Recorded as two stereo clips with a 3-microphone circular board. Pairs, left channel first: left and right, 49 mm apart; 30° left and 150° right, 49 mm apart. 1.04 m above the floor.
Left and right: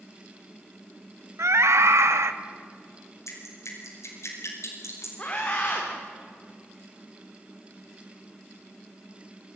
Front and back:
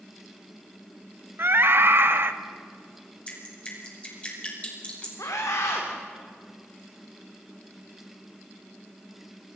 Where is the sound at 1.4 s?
110° right, 1.5 m.